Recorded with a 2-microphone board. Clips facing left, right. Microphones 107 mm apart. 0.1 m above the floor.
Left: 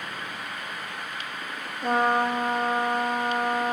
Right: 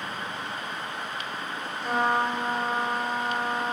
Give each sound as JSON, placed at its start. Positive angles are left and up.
{"t": 1.8, "sound": "a trumpet", "side_deg": 55, "distance_m": 0.6}